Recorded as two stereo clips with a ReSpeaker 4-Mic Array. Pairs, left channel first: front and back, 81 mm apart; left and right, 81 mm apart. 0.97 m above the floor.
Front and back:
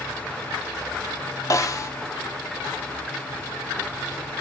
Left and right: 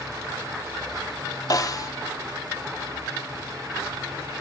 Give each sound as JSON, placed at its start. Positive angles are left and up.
{"t": 1.5, "sound": "a snare drum", "azimuth_deg": 45, "distance_m": 1.2}